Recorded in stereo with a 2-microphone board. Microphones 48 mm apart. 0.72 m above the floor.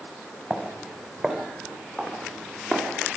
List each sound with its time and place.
0.5 s footsteps: 5° right (ahead or behind), 4 m; by 2.9 s 20° left (ahead or behind), 5.5 m